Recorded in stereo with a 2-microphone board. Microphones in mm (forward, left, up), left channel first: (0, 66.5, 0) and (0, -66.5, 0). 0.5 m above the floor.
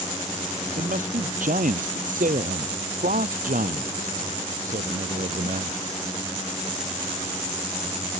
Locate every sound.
0.8 s a man speaking: 75° right (ahead or behind); by 5.8 s 85° right